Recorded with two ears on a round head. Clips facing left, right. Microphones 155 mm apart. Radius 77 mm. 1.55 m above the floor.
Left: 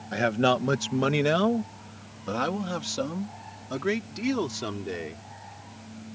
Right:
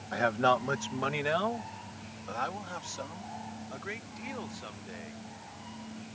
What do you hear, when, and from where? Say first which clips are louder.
0.1 s a man speaking: left 4 dB; 30° left (ahead or behind); by 5.2 s 85° left